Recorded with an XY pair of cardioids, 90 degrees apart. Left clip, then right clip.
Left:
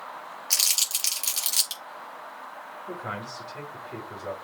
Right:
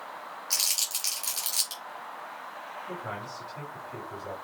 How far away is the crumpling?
About 4.5 m.